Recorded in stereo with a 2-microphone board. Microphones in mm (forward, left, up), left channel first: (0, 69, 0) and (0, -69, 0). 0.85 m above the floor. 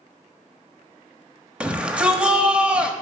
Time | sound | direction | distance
1.6 | a shout | 10° right (ahead or behind) | 1.0 m